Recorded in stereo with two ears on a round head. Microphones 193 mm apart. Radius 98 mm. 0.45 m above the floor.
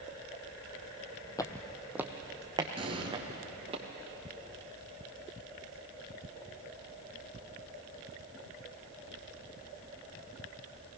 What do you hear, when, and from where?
1.4 s footsteps: 20° left (ahead or behind), 0.9 m; by 3.8 s 30° right (ahead or behind), 3 m
2.8 s an explosion: 25° right (ahead or behind), 2 m